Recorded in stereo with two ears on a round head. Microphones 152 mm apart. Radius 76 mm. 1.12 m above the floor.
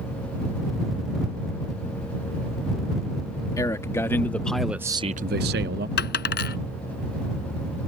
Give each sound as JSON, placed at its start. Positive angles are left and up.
{"t": 3.6, "sound": "a man speaking", "side_deg": 20}
{"t": 6.0, "sound": "a dropped coin", "side_deg": 70}